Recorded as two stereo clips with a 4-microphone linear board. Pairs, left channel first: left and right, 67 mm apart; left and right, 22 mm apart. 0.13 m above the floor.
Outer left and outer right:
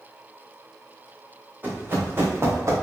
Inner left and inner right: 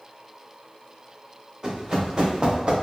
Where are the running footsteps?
30° right (ahead or behind), 3 m; by 2.7 s 45° right (ahead or behind), 2.5 m.